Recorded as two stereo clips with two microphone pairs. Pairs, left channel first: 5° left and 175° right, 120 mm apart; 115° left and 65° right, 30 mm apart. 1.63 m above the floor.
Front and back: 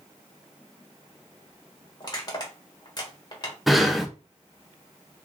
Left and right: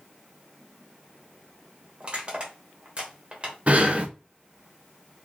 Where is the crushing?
35° right, 1.4 m.